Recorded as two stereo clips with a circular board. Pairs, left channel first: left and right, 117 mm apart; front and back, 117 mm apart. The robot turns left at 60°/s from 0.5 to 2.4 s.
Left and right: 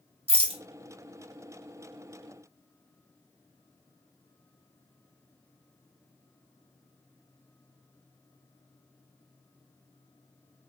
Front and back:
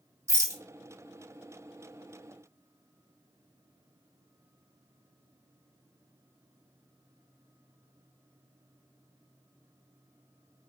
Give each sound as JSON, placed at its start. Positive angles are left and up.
{"t": 0.3, "sound": "a rattle", "azimuth_deg": -115, "distance_m": 0.7}